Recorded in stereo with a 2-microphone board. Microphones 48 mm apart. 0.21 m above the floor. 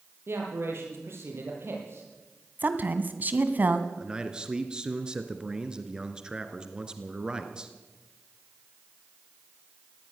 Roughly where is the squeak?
I don't hear a squeak.